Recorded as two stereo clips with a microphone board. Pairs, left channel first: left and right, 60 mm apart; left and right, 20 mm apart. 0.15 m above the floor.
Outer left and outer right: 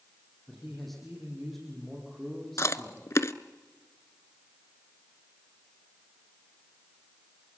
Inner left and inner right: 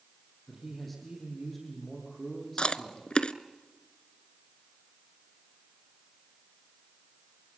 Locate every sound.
0.5 s a man speaking: 5° left (ahead or behind), 5 m
2.6 s chewing: 55° left (ahead or behind), 0.7 m